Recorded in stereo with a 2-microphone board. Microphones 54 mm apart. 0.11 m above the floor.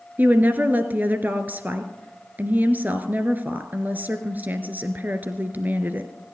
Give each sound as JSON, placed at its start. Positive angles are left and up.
{"t": 0.2, "sound": "a woman speaking", "side_deg": -35, "distance_m": 1.4}